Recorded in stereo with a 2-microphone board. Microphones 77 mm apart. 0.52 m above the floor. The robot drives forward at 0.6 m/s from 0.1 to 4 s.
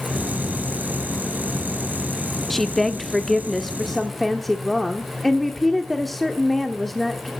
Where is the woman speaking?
Centre (ahead or behind), 0.7 m.